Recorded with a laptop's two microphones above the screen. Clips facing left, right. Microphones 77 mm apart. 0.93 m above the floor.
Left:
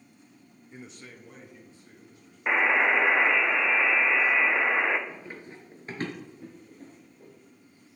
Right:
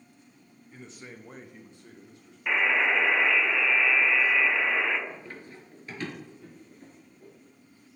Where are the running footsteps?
5° left (ahead or behind), 1.2 m; by 7.3 s 40° left (ahead or behind), 2 m.